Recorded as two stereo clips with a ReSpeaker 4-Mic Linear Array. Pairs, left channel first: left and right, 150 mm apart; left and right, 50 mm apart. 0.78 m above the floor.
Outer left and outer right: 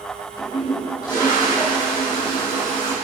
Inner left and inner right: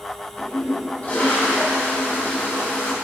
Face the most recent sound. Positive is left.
turn(degrees=30)  # may be behind; listen again after turning